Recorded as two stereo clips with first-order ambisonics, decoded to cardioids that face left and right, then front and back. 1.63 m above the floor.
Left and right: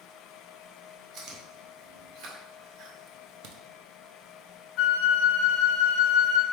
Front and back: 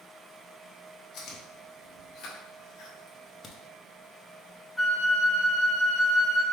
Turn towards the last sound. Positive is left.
turn(degrees=90)